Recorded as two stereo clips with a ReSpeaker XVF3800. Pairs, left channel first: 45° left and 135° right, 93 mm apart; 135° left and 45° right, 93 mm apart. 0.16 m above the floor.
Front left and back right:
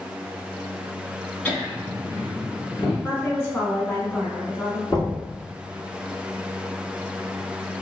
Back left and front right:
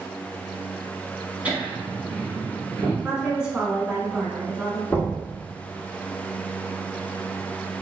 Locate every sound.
1.4 s laughter: 5° left, 1.4 m; by 2.9 s 10° left, 2 m
3.0 s a woman speaking: 20° left, 1.1 m
4.9 s knocking: 70° left, 1.3 m